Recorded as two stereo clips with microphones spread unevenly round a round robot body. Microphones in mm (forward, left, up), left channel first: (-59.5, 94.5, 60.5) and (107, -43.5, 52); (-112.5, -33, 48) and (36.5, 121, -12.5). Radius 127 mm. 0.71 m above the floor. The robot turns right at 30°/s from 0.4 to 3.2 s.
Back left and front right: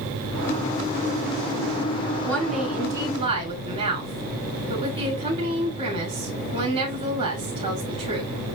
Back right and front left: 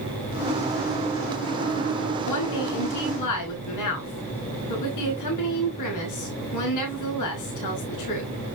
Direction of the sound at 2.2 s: 135° right.